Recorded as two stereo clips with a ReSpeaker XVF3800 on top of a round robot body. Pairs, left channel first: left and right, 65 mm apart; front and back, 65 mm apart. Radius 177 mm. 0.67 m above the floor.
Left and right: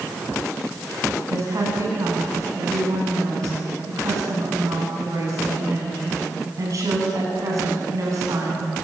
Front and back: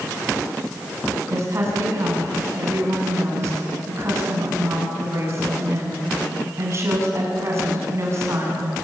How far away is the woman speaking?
About 8.5 m.